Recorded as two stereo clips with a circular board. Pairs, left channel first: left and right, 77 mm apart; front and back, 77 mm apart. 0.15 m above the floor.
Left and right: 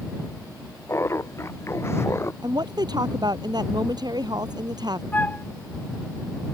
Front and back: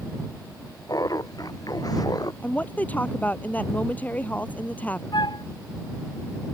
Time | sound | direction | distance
0.9 | laughter | 35° left | ?
2.4 | a woman speaking | 70° right | ?
5.1 | a flute | 20° left | ?